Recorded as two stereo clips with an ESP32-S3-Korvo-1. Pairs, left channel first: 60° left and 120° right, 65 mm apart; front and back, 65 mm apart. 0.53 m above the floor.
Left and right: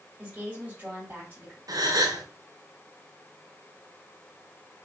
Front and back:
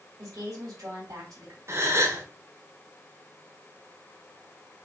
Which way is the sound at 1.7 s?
135° right.